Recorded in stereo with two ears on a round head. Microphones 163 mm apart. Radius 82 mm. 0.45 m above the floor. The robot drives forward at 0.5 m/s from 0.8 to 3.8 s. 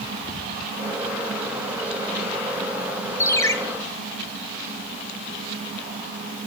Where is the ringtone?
15° left (ahead or behind), 1.2 m.